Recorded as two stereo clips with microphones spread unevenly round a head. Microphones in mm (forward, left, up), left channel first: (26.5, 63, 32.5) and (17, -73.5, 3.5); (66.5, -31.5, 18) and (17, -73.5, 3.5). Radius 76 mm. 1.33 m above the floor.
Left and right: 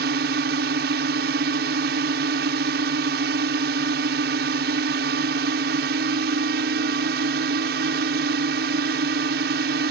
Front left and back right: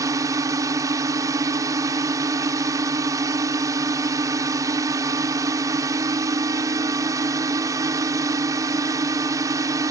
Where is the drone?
105° right.